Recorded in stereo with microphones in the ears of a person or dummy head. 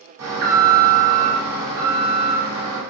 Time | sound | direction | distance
0.2 | an alarm | 70° right (ahead or behind) | 1.4 m